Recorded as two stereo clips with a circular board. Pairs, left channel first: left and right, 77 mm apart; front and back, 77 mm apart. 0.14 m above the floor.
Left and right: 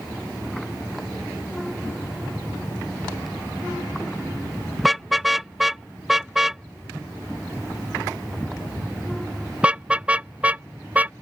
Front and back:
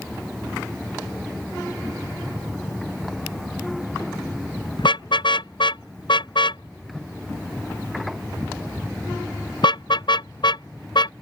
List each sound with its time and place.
4.8 s a car horn: straight ahead; by 11.1 s 20° right